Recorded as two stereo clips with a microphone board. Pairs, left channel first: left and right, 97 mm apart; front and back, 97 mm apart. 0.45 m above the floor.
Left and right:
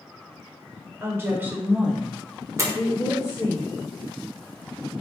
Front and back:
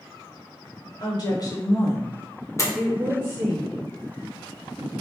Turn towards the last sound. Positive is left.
turn(degrees=-40)